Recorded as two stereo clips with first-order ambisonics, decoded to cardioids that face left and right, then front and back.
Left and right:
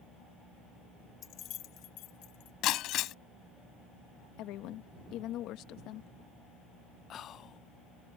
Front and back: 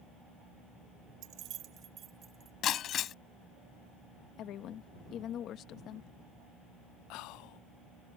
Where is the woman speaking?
50° left.